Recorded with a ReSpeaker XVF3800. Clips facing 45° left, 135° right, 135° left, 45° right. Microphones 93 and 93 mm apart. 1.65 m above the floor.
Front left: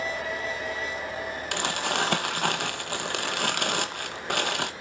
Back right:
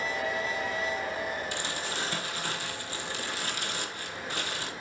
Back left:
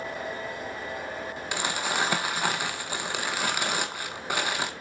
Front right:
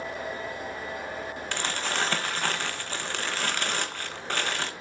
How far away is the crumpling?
About 1.4 m.